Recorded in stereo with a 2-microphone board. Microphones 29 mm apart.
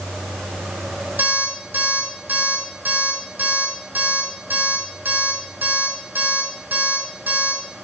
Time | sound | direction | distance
1.2 | an alarm clock | 65° right (ahead or behind) | 4 m